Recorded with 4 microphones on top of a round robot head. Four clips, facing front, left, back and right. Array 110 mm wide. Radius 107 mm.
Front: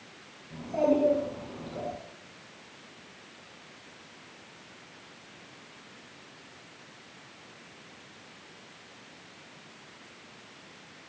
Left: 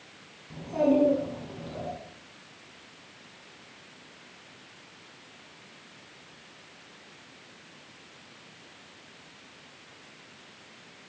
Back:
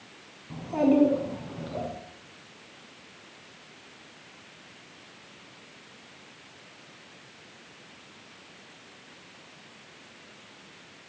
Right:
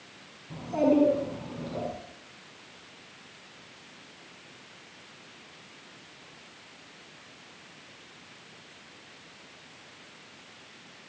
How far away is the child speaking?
About 5 m.